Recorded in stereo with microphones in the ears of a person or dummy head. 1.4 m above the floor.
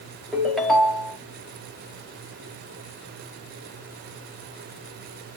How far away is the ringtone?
About 0.9 m.